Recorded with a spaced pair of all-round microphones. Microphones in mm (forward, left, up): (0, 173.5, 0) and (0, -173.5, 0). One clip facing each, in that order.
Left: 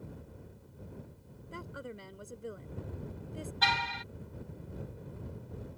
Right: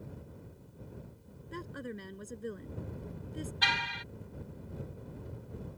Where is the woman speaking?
25° right (ahead or behind).